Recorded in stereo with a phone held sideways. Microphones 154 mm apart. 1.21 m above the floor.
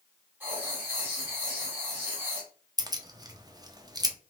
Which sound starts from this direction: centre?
Writing, at 0.4 s.